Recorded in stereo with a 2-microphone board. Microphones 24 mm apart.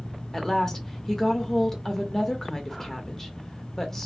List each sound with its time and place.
0.3 s a woman speaking: 15° left (ahead or behind), 0.9 m